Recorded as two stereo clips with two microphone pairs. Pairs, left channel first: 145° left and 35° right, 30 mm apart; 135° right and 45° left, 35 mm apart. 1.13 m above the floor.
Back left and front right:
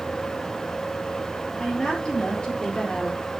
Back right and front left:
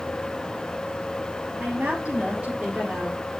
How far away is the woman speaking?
About 3 m.